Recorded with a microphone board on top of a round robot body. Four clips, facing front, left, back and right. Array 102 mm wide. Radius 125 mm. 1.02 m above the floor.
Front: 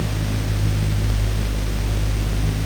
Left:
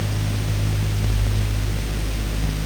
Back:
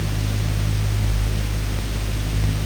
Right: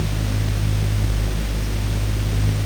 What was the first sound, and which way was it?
Only background noise.